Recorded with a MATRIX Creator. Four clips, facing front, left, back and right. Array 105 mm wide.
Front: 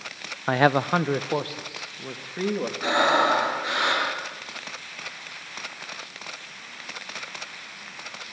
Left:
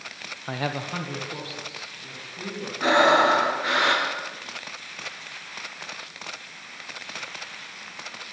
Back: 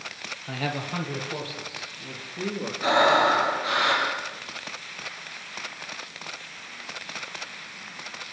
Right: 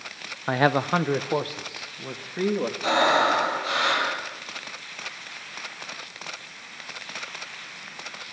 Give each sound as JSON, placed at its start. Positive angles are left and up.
{"t": 0.5, "sound": "a man speaking", "azimuth_deg": -25, "distance_m": 0.6}
{"t": 2.8, "sound": "breathing", "azimuth_deg": 80, "distance_m": 8.0}